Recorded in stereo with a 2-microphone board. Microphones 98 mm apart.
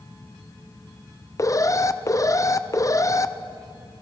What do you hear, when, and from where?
1.4 s an alarm: 35° left (ahead or behind), 0.7 m